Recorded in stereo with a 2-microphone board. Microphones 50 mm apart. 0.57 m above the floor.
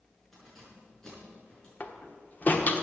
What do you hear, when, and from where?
0.3 s keys jangling: 10° left (ahead or behind), 6 m; by 1.7 s 20° left (ahead or behind), 6 m
1.8 s a door slam: 40° left (ahead or behind), 1.2 m